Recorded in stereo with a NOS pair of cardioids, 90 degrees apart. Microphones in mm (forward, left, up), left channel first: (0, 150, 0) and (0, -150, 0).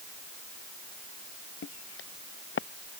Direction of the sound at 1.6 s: 40° left.